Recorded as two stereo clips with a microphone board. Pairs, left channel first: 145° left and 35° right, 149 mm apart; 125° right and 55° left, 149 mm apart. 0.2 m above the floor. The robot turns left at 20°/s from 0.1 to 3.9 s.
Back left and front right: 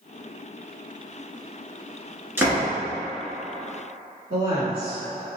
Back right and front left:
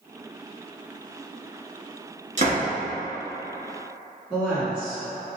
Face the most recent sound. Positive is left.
turn(degrees=-25)